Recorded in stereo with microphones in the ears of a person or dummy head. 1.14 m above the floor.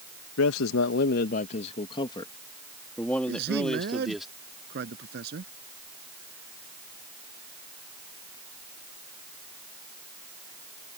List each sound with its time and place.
0.4 s a man speaking: 85° left; by 4.3 s 5° right (ahead or behind)
3.3 s a man speaking: 60° right (ahead or behind)